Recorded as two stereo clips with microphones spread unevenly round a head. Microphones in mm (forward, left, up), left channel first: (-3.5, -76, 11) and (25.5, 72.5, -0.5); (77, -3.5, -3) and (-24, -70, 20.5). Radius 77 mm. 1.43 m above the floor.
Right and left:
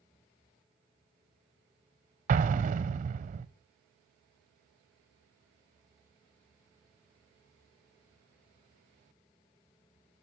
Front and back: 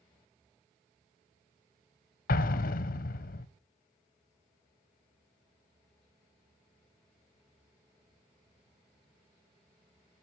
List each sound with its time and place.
2.3 s an explosion: 40° left, 0.6 m